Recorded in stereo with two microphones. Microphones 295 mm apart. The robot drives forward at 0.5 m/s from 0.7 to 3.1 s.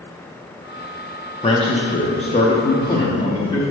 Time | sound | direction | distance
1.4 | a man speaking | 20° left (ahead or behind) | 0.8 m